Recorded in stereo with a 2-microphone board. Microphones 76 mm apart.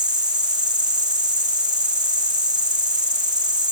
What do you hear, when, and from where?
0.0 s an insect: 85° right